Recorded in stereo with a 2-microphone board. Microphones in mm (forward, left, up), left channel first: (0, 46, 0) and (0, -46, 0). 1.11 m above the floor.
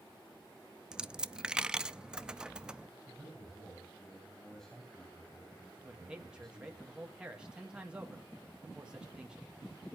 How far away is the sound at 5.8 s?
About 1.9 m.